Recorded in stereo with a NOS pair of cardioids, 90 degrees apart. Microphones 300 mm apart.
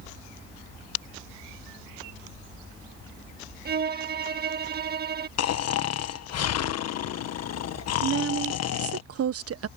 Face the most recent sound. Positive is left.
turn(degrees=-50)